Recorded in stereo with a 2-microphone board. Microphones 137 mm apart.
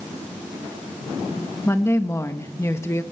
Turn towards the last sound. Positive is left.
turn(degrees=20)  # may be behind; listen again after turning